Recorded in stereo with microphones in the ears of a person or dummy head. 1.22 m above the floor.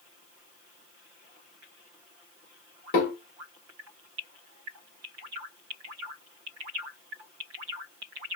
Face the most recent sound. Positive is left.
turn(degrees=65)  # may be behind; listen again after turning